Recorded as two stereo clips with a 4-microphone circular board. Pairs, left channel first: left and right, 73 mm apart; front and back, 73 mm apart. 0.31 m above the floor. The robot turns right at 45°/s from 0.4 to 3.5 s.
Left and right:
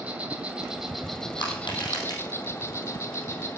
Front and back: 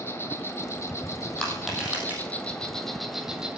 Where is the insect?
30° right, 1.7 m; by 3.6 s 110° left, 1.7 m.